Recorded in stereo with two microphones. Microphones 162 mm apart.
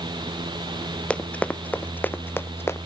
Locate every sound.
1.1 s running footsteps: 5° left (ahead or behind); by 2.8 s 15° left (ahead or behind)